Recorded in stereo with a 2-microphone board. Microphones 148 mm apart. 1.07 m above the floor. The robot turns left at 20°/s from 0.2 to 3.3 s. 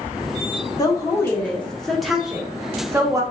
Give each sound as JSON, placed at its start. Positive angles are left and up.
{"t": 0.8, "sound": "a woman speaking", "azimuth_deg": 25, "distance_m": 1.1}